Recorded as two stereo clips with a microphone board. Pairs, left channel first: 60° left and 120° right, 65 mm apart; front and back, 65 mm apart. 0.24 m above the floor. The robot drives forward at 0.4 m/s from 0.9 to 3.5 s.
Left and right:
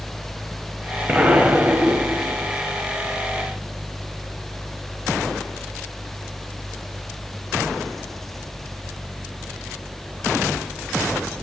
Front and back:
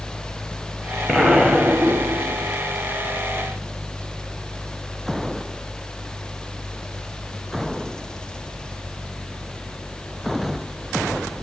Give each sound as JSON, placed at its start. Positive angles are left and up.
{"t": 1.1, "sound": "an explosion", "azimuth_deg": -95, "distance_m": 1.1}